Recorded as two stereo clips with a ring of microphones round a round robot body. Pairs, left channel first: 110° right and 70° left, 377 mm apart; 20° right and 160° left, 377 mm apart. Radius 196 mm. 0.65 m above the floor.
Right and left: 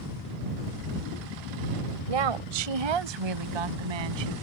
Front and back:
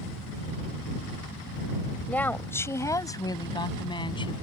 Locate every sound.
2.1 s a woman speaking: 65° left; by 4.3 s 55° left